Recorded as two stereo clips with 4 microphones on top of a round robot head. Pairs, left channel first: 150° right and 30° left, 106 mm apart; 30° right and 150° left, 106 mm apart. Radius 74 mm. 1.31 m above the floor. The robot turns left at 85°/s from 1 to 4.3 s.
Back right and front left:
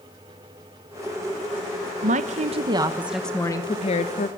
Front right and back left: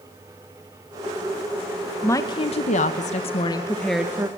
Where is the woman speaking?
40° left, 1.3 m; by 4.3 s 150° right, 1.3 m.